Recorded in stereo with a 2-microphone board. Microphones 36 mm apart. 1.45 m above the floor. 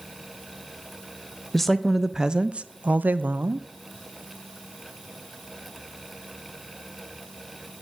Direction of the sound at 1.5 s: 5° left (ahead or behind).